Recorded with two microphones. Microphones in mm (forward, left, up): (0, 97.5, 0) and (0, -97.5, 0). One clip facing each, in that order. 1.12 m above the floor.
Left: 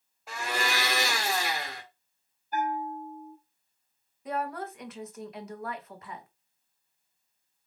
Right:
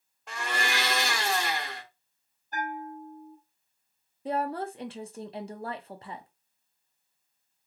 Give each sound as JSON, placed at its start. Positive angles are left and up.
{"t": 0.3, "sound": "a blender", "side_deg": 5, "distance_m": 1.2}
{"t": 2.5, "sound": "a bell", "side_deg": 5, "distance_m": 1.6}
{"t": 4.2, "sound": "a woman speaking", "side_deg": -30, "distance_m": 0.7}